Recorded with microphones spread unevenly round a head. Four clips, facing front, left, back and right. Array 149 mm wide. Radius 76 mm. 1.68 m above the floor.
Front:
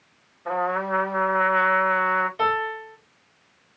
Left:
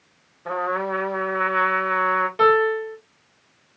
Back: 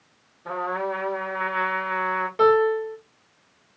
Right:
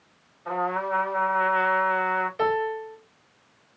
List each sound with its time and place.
0.5 s a trumpet: 90° left, 1.4 m
2.4 s a piano: 135° left, 2 m